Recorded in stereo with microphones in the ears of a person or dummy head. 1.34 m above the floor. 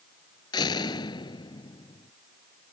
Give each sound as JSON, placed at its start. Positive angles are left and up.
{"t": 0.5, "sound": "a door slam", "side_deg": 25}